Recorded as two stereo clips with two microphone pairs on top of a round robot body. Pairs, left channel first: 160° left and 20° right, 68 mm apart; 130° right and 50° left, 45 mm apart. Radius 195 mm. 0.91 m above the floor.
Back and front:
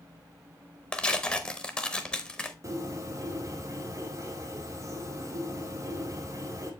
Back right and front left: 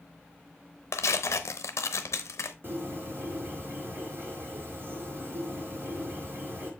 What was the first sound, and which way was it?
Tearing paper, 125° right.